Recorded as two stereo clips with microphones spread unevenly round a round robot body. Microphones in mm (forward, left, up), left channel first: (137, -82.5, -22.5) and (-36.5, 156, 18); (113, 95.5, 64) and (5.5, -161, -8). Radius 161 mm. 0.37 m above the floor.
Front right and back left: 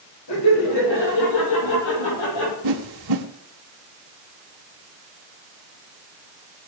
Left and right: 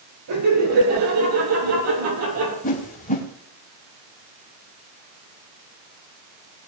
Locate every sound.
0.3 s laughter: 90° right, 10 m; by 2.5 s 85° right, 10.5 m
2.6 s a whoosh: 135° left, 1.5 m